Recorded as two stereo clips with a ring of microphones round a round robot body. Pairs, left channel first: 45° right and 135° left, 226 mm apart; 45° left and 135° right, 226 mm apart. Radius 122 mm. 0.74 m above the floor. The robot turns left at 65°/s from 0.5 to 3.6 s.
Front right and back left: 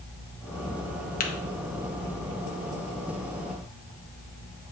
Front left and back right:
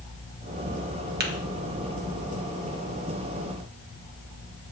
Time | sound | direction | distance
1.2 | tapping | 95° right | 1.5 m